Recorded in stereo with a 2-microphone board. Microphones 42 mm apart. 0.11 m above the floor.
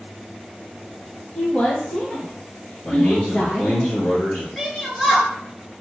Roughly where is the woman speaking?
Left.